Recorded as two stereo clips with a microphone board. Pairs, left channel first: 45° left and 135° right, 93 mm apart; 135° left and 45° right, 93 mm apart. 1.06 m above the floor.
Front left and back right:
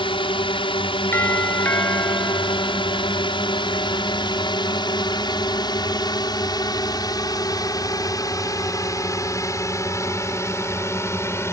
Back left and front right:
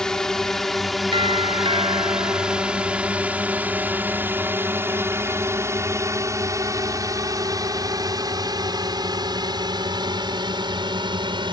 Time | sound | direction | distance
0.0 | a drone | 50° left | ?
1.1 | a doorbell | 20° right | ?